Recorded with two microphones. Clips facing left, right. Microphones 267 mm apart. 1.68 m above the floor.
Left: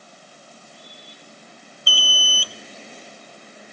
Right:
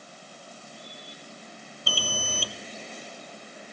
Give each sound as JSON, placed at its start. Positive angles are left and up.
{"t": 1.9, "sound": "an alarm", "side_deg": -50, "distance_m": 0.6}